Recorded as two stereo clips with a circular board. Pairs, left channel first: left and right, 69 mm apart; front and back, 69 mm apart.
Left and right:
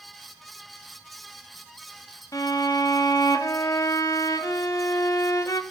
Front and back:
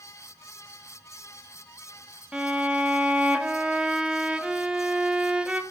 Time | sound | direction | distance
2.3 | a violin | 105° left | 0.8 m